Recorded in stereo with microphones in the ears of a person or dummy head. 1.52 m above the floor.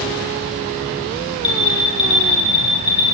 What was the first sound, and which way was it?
An alarm, 85° left.